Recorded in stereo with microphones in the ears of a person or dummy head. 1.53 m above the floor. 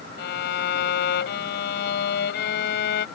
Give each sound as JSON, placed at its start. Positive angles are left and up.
{"t": 0.2, "sound": "a violin", "side_deg": 65}